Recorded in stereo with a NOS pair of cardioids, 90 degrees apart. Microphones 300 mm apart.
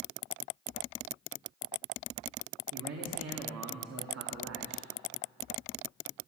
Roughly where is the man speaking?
Ahead right.